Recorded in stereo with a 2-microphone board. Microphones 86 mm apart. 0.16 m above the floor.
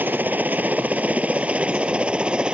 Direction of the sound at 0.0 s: 20° right (ahead or behind).